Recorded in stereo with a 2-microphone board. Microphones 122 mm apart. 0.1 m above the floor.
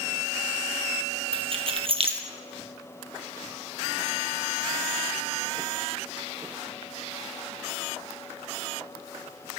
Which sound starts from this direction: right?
Keys jangling, at 1.3 s.